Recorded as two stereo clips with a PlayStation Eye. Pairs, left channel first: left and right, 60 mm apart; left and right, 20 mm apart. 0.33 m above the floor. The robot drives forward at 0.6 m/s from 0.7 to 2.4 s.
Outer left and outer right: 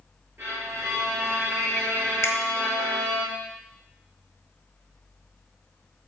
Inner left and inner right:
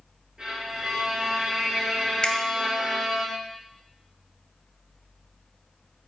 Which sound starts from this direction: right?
A violin, at 0.4 s.